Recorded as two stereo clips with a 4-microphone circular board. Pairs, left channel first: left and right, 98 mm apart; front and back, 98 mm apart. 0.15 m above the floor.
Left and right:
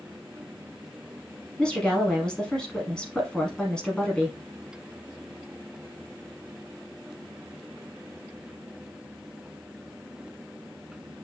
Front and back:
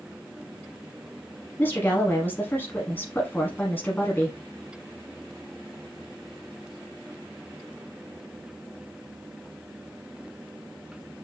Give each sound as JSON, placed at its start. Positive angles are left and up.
{"t": 1.6, "sound": "a woman speaking", "azimuth_deg": 25, "distance_m": 1.1}